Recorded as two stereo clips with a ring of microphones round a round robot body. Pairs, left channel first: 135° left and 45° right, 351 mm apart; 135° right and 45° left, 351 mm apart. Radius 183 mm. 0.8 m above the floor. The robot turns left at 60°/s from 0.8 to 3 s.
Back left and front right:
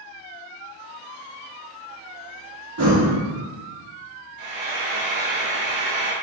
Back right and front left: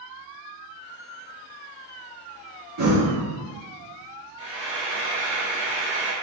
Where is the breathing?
5° left, 1.4 m; by 3.1 s 10° right, 1.4 m.